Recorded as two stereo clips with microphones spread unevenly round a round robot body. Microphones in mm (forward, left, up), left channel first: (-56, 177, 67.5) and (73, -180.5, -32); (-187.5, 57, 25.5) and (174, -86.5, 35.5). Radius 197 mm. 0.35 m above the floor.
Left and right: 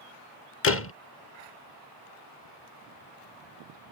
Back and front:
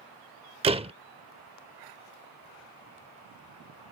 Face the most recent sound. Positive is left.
turn(degrees=50)